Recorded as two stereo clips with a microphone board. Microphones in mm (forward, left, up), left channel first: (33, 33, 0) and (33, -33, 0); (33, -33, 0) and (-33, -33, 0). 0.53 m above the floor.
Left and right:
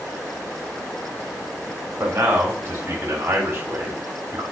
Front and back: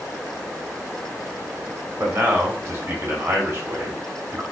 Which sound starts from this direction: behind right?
A man speaking, at 2.0 s.